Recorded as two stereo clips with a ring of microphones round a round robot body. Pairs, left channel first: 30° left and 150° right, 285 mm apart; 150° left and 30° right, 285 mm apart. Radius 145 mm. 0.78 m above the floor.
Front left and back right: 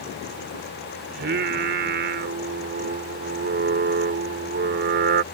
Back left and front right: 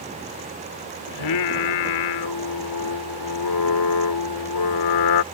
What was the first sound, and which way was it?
Singing, 155° left.